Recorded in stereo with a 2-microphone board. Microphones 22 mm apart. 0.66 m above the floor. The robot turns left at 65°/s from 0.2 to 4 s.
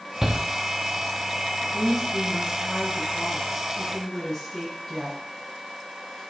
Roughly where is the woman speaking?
Behind.